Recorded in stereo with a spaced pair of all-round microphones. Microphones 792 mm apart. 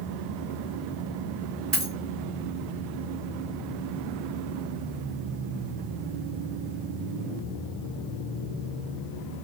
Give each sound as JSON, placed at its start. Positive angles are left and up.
{"t": 1.7, "sound": "a dropped coin", "side_deg": -50, "distance_m": 1.7}